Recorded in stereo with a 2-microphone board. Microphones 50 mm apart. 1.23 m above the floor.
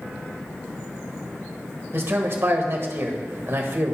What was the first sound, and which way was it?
A man speaking, 55° right (ahead or behind).